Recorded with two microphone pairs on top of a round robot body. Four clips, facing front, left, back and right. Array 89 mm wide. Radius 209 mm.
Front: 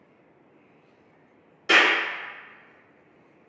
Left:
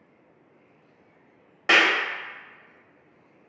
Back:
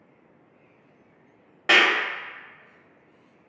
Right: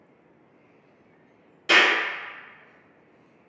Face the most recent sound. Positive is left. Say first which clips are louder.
# even, even
turn(degrees=130)